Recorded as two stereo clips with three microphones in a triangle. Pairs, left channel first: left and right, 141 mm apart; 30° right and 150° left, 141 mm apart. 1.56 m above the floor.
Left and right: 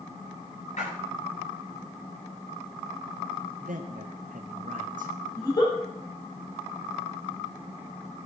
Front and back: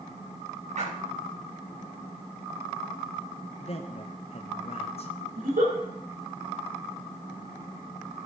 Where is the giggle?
150° left, 4.5 m.